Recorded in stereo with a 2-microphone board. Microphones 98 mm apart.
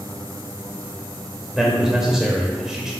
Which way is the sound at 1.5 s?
5° right (ahead or behind).